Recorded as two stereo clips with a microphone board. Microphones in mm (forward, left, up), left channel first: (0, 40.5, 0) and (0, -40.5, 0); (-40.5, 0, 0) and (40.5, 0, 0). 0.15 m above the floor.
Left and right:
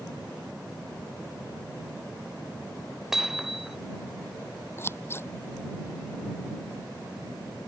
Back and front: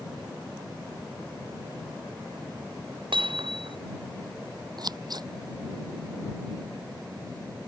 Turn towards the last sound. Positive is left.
turn(degrees=30)